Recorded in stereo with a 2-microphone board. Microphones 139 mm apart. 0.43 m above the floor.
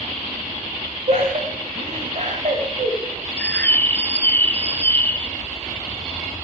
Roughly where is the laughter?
Right.